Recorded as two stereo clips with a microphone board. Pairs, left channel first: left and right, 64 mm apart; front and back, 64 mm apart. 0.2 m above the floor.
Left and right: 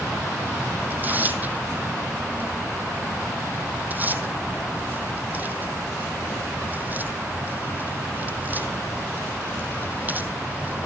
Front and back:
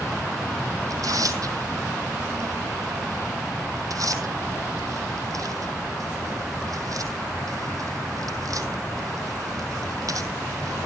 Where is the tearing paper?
150° right, 1.6 m.